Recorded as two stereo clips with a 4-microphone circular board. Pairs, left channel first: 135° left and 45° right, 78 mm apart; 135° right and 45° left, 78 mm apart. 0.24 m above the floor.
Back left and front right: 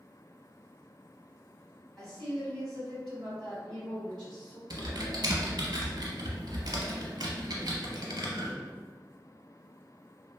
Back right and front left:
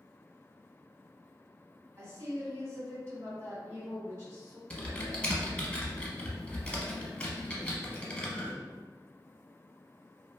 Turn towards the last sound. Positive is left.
turn(degrees=-65)